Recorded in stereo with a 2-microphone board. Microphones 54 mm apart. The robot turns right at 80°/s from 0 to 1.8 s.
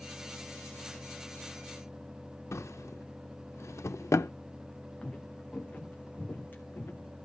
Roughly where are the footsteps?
Centre.